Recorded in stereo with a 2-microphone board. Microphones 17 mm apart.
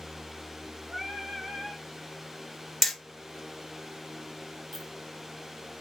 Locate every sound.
0.9 s singing: 45° right (ahead or behind), 1.0 m
2.8 s hammering: centre (ahead or behind), 1.4 m
4.7 s a clink: 15° left (ahead or behind), 1.4 m